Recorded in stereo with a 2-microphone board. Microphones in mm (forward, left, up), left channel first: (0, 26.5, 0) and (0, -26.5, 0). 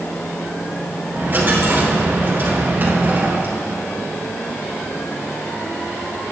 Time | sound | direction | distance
1.1 | a dropped coin | 35° right (ahead or behind) | 3.5 m